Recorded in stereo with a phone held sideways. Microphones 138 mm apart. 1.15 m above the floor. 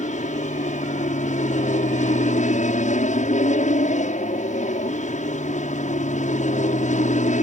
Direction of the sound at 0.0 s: 65° left (ahead or behind).